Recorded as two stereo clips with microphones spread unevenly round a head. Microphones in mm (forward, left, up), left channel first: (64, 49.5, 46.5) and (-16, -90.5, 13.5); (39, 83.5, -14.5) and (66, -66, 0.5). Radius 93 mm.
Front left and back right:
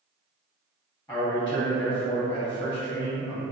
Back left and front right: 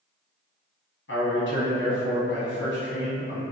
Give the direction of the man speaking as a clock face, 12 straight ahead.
7 o'clock.